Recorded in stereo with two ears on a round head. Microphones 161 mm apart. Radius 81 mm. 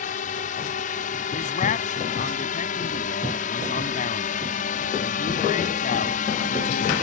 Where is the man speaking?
45° left (ahead or behind).